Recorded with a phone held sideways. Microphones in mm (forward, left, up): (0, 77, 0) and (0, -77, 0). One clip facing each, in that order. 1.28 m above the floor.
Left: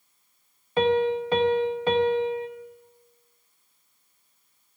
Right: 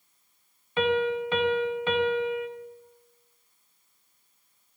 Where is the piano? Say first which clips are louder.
Left 3 dB; 40° left (ahead or behind), 0.5 m.